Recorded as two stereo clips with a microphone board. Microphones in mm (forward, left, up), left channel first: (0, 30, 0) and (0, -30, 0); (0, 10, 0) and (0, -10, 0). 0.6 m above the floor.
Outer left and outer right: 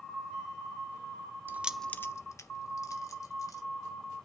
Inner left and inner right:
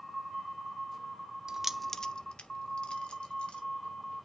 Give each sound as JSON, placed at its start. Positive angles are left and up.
{"t": 1.5, "sound": "keys jangling", "side_deg": -35, "distance_m": 0.6}